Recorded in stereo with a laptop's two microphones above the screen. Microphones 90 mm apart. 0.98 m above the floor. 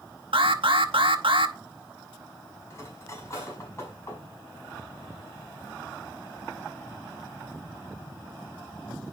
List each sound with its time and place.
0.3 s an alarm: 70° right (ahead or behind), 0.9 m
2.7 s cutlery clinking: 35° left (ahead or behind), 4.5 m